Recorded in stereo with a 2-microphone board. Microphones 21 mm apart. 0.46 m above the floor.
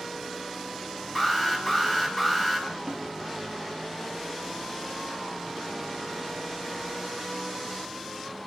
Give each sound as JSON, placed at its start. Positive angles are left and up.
{"t": 1.1, "sound": "an alarm", "side_deg": -10, "distance_m": 4.0}
{"t": 2.9, "sound": "a snare drum", "side_deg": -70, "distance_m": 3.5}